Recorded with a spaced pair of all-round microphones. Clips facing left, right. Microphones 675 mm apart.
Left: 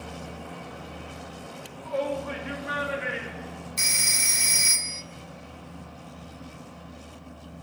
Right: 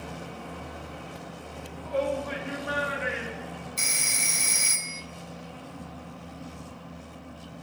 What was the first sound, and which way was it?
A shout, 15° left (ahead or behind).